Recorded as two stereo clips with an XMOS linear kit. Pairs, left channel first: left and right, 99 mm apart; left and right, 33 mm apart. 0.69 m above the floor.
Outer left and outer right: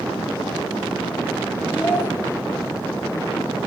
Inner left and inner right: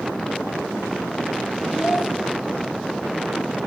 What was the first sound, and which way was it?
A child speaking, 10° right (ahead or behind).